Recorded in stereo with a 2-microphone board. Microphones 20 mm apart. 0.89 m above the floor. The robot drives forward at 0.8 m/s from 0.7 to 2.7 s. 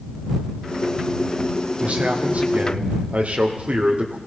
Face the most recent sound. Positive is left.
turn(degrees=-60)  # may be behind; listen again after turning